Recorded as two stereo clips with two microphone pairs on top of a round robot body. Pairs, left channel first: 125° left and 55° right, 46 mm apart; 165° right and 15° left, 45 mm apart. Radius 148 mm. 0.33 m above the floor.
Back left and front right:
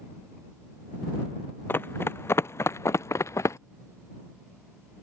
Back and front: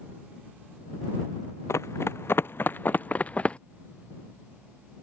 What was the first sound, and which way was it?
Running footsteps, 170° left.